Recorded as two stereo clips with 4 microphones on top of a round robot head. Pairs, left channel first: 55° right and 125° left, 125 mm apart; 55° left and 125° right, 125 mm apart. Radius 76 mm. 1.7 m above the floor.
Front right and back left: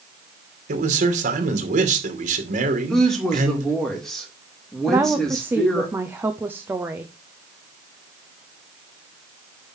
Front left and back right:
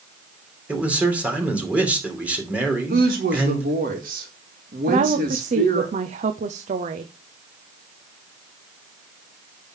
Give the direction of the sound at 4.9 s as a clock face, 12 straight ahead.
5 o'clock.